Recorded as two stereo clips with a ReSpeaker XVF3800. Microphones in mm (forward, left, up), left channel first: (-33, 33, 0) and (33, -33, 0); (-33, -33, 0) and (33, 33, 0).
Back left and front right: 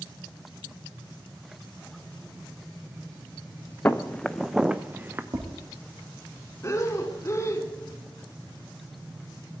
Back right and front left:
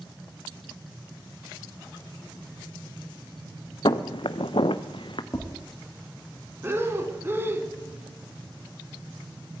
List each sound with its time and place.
3.9 s footsteps: 160° right, 0.9 m; by 5.2 s 110° right, 1.1 m
5.3 s tapping: 90° right, 4.5 m
6.6 s breathing: 95° left, 1.3 m